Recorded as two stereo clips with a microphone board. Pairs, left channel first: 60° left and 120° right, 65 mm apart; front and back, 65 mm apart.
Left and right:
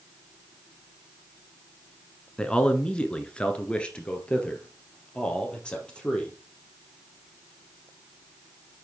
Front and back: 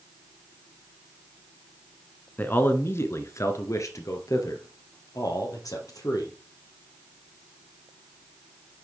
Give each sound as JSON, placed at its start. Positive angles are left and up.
{"t": 2.4, "sound": "a man speaking", "azimuth_deg": 0, "distance_m": 1.2}